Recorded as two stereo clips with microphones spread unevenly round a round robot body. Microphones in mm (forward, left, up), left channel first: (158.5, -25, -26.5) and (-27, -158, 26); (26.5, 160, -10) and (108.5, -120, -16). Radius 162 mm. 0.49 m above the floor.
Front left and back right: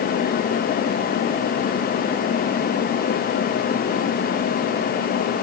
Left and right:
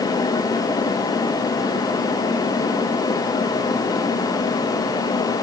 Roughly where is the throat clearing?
No throat clearing in this recording.